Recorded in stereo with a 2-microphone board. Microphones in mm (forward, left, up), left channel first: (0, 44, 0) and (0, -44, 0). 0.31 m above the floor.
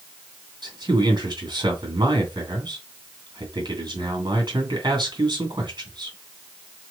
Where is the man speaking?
60° right (ahead or behind), 1.9 m.